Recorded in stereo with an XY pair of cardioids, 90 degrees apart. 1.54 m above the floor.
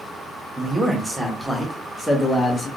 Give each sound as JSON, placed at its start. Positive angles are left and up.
{"t": 0.6, "sound": "a man speaking", "azimuth_deg": -15, "distance_m": 1.5}